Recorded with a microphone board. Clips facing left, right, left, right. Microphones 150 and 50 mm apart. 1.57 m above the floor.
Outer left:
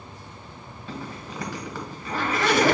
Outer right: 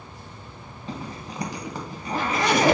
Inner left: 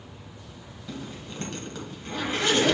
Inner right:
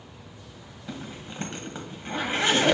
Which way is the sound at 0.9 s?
20° right (ahead or behind).